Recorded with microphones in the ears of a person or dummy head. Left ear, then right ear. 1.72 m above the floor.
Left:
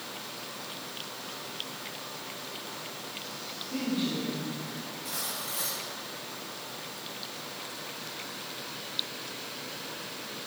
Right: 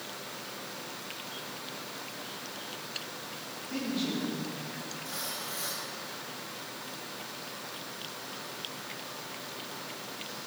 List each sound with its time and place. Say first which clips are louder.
3.7 s a woman speaking: left 1 dB; 45° right (ahead or behind), 3.5 m; by 5.0 s 25° right (ahead or behind), 4 m
5.0 s cutlery clinking: left 2 dB; 15° left (ahead or behind), 3.5 m